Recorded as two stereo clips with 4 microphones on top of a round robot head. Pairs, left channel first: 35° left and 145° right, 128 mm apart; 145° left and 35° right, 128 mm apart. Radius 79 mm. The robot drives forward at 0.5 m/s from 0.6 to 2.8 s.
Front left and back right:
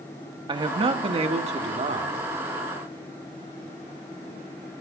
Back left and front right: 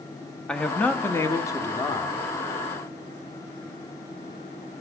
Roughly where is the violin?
No violin in this recording.